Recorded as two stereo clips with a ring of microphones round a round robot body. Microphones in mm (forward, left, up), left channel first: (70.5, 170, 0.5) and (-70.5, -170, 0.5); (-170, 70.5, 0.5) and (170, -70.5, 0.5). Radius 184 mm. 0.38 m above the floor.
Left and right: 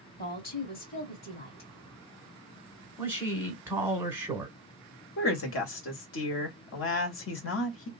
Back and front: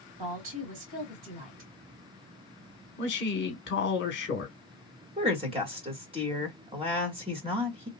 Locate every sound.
0.2 s a woman speaking: 5° left, 2 m
3.0 s a man speaking: 170° left, 1.1 m
5.2 s a woman speaking: 45° left, 1.3 m